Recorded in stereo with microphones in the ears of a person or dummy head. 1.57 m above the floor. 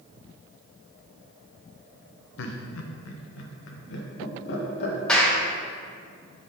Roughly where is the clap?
Centre.